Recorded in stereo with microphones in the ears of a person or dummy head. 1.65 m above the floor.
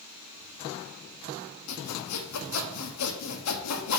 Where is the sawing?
85° left, 1.0 m.